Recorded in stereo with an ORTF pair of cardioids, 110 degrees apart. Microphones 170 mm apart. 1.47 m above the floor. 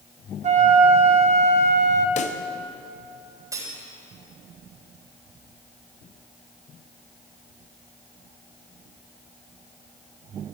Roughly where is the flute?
Ahead right.